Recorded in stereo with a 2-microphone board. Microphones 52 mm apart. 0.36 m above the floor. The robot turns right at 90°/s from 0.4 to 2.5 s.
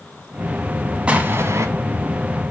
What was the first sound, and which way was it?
An explosion, 155° right.